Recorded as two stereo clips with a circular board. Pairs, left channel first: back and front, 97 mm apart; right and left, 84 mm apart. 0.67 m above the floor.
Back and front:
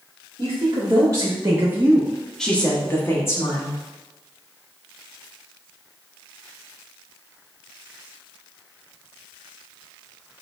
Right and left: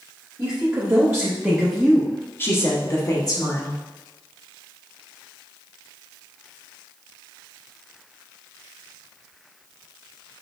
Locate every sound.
0.4 s a woman speaking: 40° left, 1.7 m; by 3.8 s 125° right, 1.8 m